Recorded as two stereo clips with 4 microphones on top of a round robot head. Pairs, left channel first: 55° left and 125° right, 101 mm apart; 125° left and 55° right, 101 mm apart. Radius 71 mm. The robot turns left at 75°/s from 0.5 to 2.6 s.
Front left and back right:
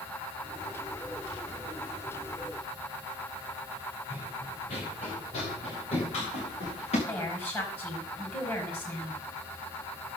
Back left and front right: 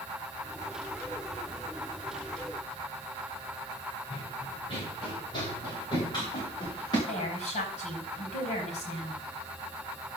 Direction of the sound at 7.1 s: 125° left.